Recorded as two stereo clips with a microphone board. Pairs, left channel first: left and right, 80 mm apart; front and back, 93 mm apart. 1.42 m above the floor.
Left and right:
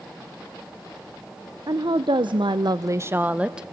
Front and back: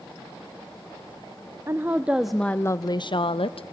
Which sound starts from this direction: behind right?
A woman speaking, at 1.7 s.